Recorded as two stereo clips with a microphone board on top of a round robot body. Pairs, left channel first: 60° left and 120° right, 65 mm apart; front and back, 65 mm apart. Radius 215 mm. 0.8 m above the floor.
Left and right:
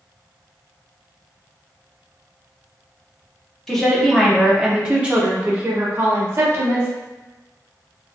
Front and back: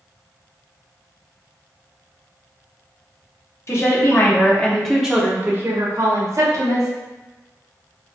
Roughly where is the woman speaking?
Ahead.